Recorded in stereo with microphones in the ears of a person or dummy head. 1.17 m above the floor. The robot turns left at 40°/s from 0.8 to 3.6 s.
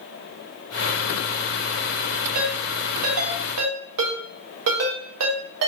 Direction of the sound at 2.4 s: 50° right (ahead or behind).